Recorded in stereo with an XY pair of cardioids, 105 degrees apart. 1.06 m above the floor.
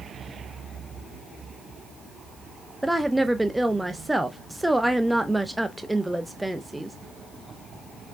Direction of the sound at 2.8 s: 10° right.